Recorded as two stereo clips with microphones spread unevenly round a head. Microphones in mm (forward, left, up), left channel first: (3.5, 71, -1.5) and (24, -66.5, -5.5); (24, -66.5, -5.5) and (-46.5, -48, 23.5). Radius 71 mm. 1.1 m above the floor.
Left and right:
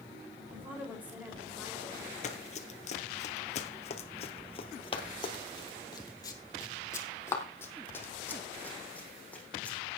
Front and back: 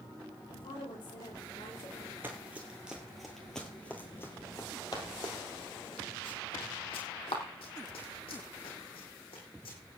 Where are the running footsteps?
120° left, 1.7 m; by 9.8 s 15° left, 4 m.